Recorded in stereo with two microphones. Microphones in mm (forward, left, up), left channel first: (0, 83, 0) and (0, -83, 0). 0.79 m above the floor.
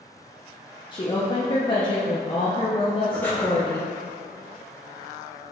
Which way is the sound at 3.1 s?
10° left (ahead or behind).